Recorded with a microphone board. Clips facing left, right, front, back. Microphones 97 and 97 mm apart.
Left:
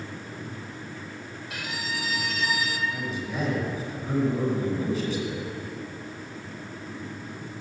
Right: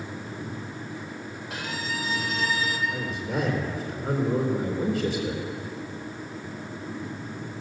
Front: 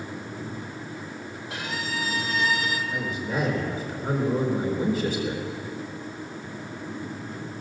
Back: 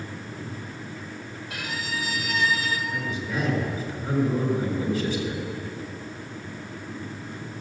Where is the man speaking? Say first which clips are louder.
Right 2 dB, front 1 dB; 50° right, 3.5 m.